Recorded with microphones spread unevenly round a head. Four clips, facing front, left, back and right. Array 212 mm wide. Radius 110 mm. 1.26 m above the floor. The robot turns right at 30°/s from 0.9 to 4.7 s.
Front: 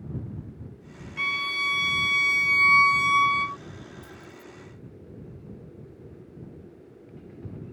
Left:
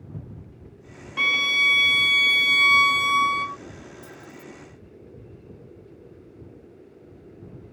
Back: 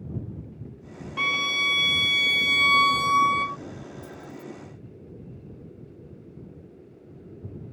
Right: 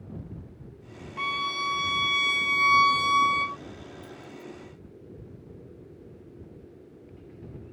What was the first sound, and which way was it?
A violin, 125° left.